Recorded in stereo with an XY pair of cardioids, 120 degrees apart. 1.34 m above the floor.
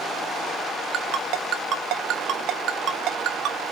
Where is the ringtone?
65° right, 1.6 m.